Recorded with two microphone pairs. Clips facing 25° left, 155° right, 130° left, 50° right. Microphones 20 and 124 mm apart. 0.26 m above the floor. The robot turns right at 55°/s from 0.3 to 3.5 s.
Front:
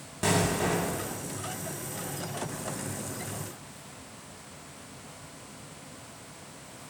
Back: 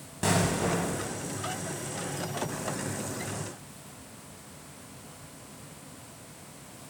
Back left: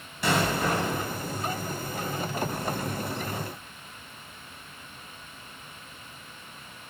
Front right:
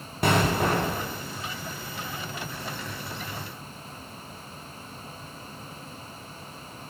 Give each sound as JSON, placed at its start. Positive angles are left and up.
{"t": 0.2, "sound": "an explosion", "azimuth_deg": -65, "distance_m": 0.5}